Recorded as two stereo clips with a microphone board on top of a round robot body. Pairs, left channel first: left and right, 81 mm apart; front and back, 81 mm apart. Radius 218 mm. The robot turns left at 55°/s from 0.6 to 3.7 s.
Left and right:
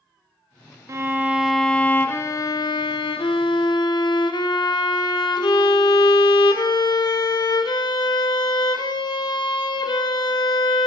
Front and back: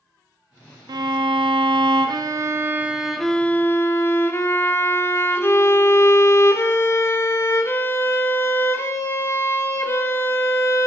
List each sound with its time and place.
0.9 s a violin: 145° right, 0.6 m; by 10.9 s 60° left, 0.6 m